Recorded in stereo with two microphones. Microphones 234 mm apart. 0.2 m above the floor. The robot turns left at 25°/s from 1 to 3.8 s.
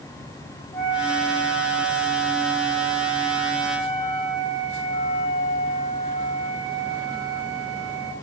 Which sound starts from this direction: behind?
A flute, at 0.7 s.